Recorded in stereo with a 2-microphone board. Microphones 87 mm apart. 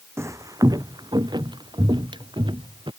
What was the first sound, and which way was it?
Footsteps, 30° right (ahead or behind).